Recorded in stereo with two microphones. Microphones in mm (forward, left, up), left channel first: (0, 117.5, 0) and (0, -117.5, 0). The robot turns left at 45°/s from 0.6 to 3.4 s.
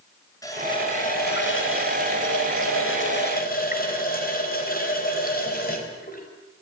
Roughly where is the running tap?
Behind.